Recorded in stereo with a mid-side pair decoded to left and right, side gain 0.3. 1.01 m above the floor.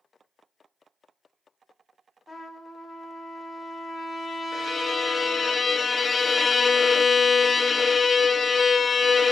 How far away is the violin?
About 0.6 m.